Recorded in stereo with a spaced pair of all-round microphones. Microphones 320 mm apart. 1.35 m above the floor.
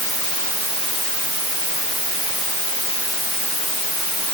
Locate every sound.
Only background noise.